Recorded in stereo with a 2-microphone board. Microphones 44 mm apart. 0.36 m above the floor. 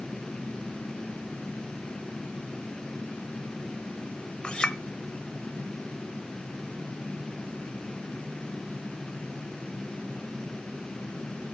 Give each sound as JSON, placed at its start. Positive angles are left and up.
{"t": 4.4, "sound": "a clink", "side_deg": 25, "distance_m": 0.7}